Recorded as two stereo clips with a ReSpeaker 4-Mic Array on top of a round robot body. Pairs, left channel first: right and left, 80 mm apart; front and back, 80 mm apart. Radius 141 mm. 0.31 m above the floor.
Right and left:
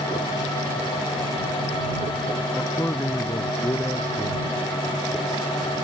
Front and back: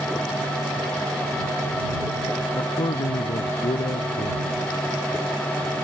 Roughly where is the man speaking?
Ahead.